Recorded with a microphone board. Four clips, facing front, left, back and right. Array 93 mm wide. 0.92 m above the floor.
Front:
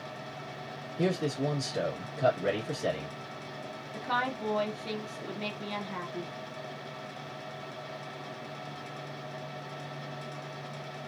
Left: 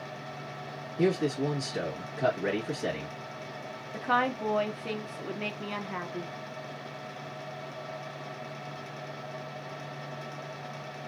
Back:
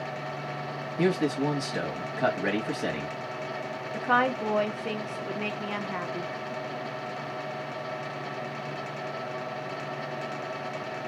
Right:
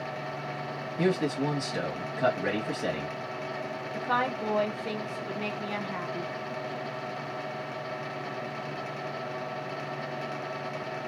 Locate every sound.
1.0 s a man speaking: 155° right, 1.2 m
3.9 s a woman speaking: 170° left, 0.7 m